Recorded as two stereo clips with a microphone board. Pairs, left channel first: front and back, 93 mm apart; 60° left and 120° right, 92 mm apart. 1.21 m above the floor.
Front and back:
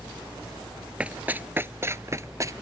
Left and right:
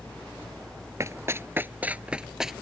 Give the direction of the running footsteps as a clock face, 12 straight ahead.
4 o'clock.